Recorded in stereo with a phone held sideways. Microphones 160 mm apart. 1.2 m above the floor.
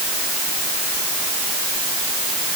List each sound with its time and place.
Only background noise.